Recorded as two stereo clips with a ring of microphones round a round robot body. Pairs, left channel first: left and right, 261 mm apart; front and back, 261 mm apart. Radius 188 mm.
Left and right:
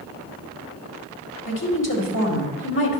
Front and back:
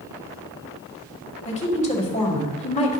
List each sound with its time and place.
1.4 s a woman speaking: 60° left, 2.5 m